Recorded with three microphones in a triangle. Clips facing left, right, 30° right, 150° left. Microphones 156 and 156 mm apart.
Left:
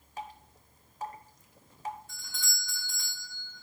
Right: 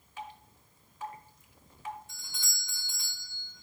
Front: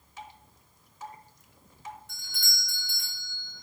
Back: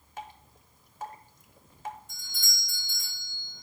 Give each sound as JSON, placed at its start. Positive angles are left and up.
{"t": 0.2, "sound": "dripping", "azimuth_deg": 130, "distance_m": 0.9}
{"t": 2.1, "sound": "a doorbell", "azimuth_deg": -20, "distance_m": 4.5}